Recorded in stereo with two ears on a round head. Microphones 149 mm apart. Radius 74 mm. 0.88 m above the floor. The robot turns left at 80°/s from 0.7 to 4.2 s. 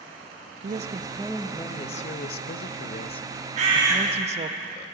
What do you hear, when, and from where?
0.6 s a woman speaking: 125° right, 0.6 m; by 4.6 s 45° right, 0.6 m
3.6 s a bird: 135° right, 1.6 m; by 4.0 s 165° right, 1.6 m